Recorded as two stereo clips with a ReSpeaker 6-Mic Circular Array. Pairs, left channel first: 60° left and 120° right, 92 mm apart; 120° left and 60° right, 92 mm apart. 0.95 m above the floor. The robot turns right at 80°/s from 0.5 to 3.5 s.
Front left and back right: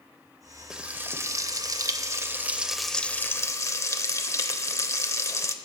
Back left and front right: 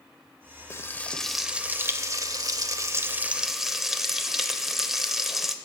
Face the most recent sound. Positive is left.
turn(degrees=25)